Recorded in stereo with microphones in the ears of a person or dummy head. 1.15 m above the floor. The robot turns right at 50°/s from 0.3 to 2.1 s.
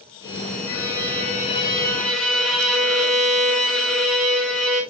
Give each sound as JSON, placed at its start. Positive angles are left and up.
{"t": 0.7, "sound": "a violin", "azimuth_deg": 100, "distance_m": 2.5}